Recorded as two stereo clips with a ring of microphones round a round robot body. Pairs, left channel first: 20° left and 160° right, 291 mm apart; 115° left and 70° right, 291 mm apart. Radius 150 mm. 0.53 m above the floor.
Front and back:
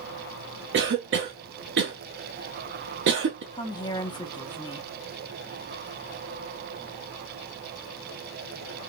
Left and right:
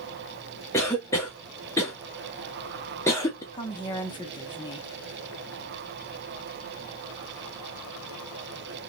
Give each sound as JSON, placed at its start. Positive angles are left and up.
{"t": 0.7, "sound": "a cough", "azimuth_deg": -175, "distance_m": 0.8}
{"t": 3.5, "sound": "a woman speaking", "azimuth_deg": 70, "distance_m": 0.7}